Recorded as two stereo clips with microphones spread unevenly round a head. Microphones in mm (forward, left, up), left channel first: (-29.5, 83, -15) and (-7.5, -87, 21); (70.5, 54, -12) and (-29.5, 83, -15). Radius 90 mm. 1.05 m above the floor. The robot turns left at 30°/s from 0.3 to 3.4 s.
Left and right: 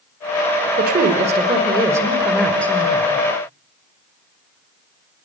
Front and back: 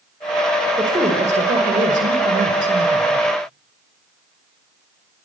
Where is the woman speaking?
125° right, 5 m; by 3.2 s 165° left, 5 m.